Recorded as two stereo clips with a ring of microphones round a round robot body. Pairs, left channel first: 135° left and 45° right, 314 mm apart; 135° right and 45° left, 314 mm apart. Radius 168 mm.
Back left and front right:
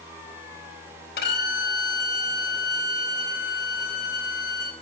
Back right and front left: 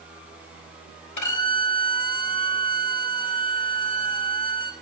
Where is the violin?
165° right, 3.5 m.